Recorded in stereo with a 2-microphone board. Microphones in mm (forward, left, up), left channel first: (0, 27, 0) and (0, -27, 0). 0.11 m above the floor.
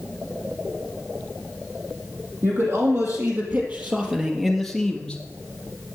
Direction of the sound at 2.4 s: 55° right (ahead or behind).